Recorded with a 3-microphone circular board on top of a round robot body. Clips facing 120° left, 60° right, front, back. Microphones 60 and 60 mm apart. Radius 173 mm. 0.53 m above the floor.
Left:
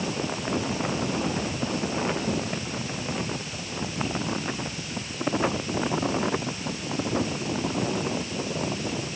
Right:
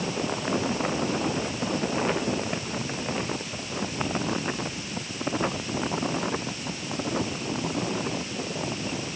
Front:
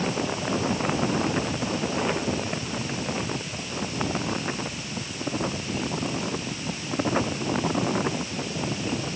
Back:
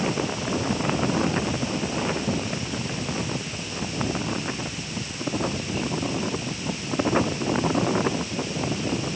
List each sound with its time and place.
Only background noise.